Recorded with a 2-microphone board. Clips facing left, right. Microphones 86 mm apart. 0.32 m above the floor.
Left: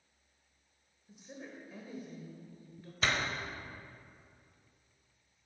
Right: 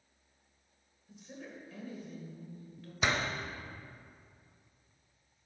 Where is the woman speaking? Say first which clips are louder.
Right 1 dB; 15° left (ahead or behind), 1.4 m.